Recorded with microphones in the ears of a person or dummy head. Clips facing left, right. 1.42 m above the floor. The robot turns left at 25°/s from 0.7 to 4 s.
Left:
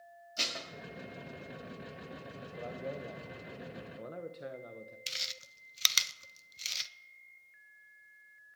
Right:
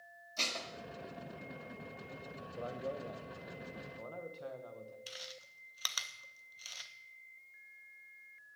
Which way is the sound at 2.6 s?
170° right.